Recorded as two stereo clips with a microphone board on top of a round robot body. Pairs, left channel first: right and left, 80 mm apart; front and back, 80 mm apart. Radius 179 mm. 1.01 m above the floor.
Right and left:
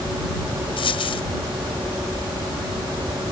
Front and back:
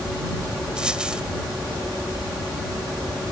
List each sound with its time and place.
0.8 s a dropped coin: 100° right